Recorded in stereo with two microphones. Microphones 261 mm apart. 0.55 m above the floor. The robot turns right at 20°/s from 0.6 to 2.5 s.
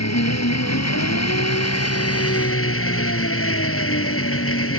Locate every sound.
0.0 s an engine running: 85° left; by 4.8 s 125° left